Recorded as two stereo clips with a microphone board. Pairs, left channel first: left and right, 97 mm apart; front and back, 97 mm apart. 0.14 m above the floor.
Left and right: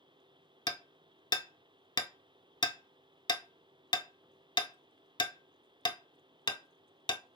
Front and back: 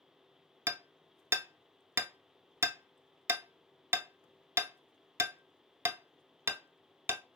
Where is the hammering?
115° left, 0.5 m.